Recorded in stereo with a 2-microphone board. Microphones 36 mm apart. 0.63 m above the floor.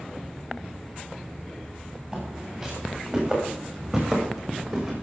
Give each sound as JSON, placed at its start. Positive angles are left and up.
{"t": 2.1, "sound": "footsteps", "side_deg": -10, "distance_m": 9.0}